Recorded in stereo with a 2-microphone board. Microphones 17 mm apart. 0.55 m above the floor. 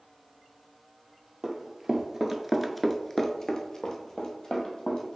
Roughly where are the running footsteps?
Right.